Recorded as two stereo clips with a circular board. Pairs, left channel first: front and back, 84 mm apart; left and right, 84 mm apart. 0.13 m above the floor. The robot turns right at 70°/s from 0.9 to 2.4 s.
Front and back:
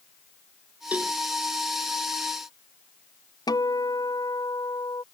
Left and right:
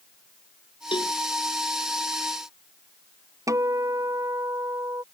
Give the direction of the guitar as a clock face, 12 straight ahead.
1 o'clock.